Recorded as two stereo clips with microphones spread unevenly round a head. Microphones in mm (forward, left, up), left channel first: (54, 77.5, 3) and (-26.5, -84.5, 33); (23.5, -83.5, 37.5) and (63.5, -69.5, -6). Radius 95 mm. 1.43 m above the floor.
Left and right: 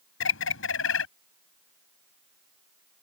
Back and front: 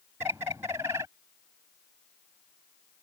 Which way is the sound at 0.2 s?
90° left.